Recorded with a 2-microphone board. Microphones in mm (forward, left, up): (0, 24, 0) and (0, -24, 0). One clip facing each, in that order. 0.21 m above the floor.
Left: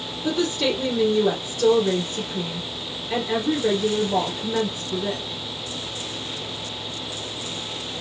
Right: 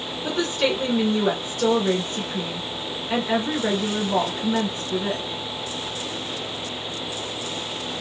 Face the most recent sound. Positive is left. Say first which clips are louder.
# even
turn(degrees=-35)  # may be behind; listen again after turning